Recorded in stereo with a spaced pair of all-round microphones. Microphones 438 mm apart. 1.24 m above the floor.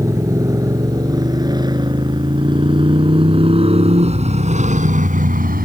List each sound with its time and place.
0.0 s a motorcycle: 5° right (ahead or behind); by 5.7 s 20° right (ahead or behind)